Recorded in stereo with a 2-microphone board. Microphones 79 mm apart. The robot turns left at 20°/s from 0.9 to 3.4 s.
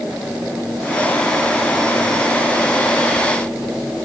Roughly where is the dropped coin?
I don't hear a dropped coin.